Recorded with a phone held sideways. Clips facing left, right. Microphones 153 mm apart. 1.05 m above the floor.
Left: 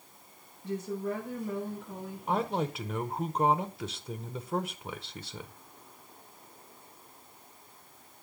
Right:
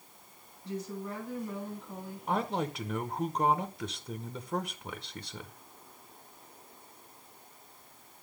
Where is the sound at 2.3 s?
5° left (ahead or behind), 0.7 m.